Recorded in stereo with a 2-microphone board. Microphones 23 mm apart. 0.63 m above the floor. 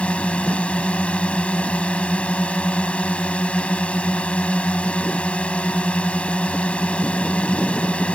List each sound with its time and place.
0.0 s a drone: 70° left (ahead or behind)